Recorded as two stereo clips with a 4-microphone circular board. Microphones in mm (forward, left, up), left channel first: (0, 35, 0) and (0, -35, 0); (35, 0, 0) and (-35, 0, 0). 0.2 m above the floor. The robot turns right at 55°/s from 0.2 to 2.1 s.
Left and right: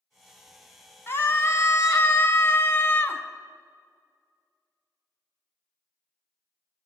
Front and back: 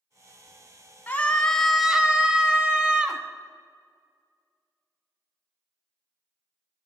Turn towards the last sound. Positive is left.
turn(degrees=110)